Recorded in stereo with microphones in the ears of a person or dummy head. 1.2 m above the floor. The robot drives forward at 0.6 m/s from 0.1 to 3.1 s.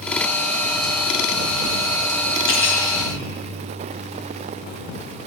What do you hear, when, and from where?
2.5 s cutlery clinking: 65° left (ahead or behind), 2.0 m; by 2.9 s 60° left (ahead or behind), 2 m